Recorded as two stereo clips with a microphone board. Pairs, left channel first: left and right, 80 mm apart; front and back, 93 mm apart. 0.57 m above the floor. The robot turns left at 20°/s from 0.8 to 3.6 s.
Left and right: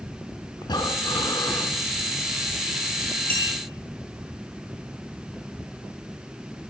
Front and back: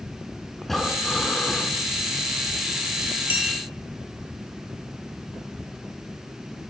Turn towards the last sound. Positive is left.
turn(degrees=10)